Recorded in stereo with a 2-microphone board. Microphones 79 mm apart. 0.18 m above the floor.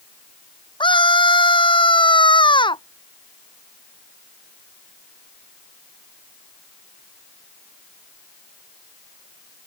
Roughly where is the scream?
Left.